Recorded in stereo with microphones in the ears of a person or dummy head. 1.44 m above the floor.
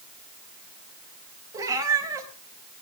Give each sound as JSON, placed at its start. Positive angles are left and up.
{"t": 1.5, "sound": "a cat meowing", "side_deg": -15, "distance_m": 3.5}